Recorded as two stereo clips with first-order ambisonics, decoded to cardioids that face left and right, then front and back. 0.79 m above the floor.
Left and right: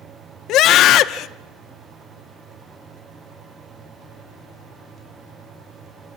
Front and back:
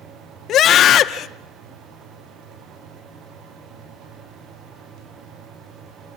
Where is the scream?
50° left, 0.9 m.